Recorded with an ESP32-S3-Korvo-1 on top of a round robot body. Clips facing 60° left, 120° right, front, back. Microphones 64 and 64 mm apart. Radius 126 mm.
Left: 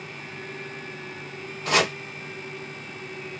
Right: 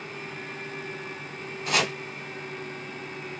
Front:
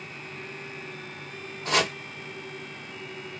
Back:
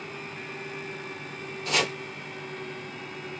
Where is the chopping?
55° left, 0.8 m.